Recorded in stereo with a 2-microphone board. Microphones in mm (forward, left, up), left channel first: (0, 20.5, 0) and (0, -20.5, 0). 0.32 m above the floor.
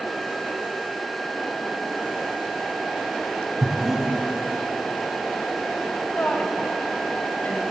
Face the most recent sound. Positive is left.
turn(degrees=40)  # may be behind; listen again after turning